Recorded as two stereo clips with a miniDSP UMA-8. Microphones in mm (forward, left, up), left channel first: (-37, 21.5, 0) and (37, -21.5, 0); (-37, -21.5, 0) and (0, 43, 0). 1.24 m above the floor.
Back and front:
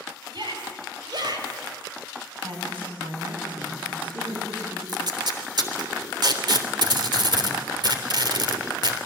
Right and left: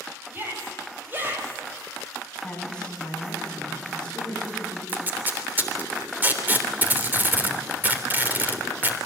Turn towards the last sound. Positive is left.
turn(degrees=-5)